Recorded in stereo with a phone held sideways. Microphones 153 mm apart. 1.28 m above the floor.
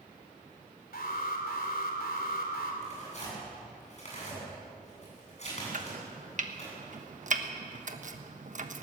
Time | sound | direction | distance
0.9 | an alarm | 85° left | 3 m
2.8 | tearing paper | 50° left (ahead or behind) | 9 m
5.7 | chopping | 55° right (ahead or behind) | 1.3 m